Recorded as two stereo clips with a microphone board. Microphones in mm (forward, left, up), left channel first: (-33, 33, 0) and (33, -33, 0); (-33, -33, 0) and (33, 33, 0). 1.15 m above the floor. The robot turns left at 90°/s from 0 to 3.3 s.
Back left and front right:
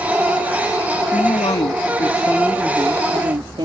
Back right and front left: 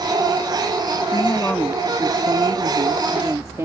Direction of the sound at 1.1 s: 170° right.